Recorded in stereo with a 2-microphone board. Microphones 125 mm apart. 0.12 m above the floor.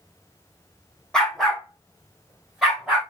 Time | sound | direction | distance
1.1 | a dog barking | 5° left (ahead or behind) | 2.5 m